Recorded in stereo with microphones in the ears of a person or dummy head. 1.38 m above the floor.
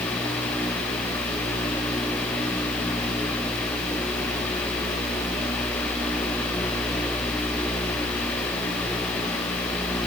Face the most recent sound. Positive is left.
No sound to turn to.